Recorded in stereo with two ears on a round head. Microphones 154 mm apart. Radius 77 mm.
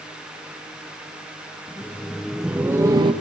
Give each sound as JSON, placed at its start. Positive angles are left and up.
{"t": 1.7, "sound": "laughter", "side_deg": 10, "distance_m": 1.4}